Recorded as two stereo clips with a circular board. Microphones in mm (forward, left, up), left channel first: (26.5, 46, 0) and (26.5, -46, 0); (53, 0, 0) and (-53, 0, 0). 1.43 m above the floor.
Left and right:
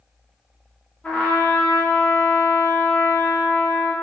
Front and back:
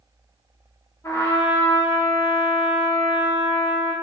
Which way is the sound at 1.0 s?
30° left.